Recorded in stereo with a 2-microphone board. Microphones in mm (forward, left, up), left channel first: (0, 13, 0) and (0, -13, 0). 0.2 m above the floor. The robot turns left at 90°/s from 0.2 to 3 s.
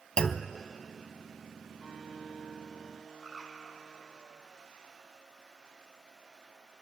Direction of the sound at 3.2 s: 20° right (ahead or behind).